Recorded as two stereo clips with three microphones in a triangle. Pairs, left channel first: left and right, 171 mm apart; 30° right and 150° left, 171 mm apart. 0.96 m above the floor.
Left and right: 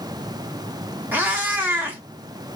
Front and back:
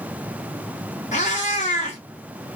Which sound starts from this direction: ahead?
A cat meowing, at 1.1 s.